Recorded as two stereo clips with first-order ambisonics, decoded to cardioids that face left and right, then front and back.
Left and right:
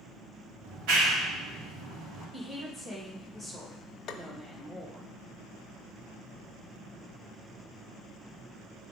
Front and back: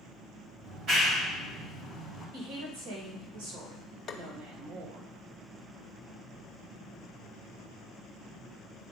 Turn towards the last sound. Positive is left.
turn(degrees=55)